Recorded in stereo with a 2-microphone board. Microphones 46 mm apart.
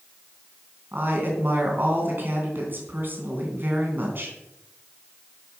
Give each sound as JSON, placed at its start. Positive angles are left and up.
{"t": 0.9, "sound": "a woman speaking", "side_deg": -45, "distance_m": 3.5}